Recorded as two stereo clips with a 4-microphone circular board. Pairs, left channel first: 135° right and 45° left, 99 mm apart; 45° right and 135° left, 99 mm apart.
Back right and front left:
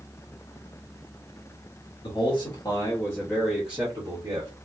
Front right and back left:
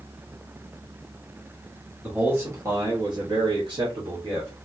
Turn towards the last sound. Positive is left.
turn(degrees=95)